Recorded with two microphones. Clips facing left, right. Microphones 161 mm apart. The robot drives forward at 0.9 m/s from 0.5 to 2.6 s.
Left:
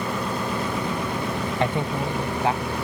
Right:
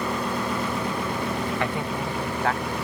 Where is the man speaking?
30° left (ahead or behind); by 2.8 s 20° left (ahead or behind).